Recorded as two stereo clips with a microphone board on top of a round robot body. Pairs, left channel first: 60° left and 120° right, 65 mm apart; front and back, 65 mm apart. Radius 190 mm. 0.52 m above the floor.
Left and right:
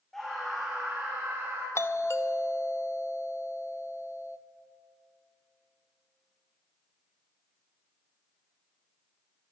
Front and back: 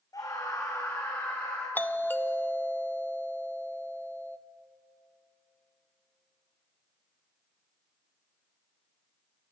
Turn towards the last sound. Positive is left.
turn(degrees=45)